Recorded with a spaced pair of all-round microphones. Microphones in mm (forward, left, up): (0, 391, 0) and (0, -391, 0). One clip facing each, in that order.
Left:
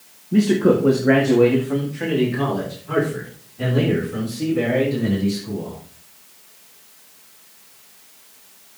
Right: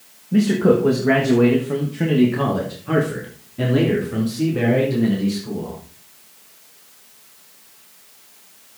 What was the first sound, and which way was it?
A man speaking, 15° right (ahead or behind).